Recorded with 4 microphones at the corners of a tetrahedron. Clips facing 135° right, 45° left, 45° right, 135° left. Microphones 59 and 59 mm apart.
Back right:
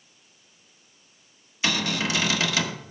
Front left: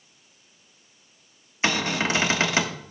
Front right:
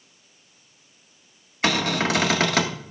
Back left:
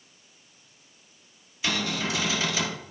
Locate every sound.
1.6 s a cupboard door: 15° right, 1.1 m